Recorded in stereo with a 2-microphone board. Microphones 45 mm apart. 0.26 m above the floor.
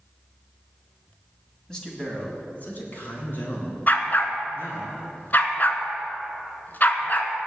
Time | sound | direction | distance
1.7 | a man speaking | 15° left (ahead or behind) | 2 m
3.9 | a dog barking | 45° left (ahead or behind) | 1.0 m